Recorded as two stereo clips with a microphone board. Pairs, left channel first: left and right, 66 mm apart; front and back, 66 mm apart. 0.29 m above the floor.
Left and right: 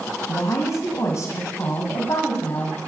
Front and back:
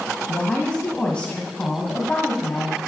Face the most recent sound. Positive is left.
turn(degrees=70)